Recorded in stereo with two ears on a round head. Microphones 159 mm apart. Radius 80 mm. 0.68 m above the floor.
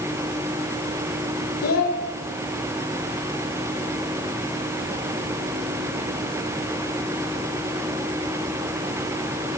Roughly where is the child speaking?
Left.